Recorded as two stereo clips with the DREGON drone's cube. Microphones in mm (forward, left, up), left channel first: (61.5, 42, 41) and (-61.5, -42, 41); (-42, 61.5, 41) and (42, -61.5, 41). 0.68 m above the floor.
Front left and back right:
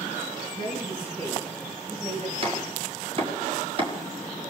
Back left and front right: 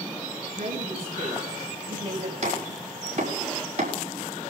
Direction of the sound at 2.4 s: 95° right.